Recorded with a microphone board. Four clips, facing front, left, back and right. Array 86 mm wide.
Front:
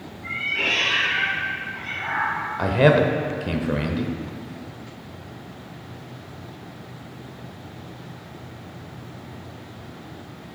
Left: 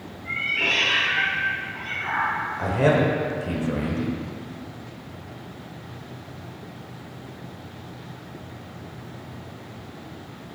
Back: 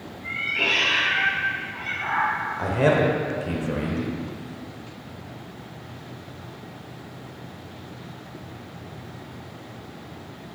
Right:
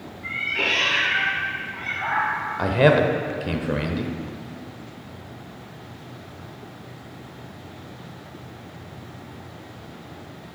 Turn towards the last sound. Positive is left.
turn(degrees=-50)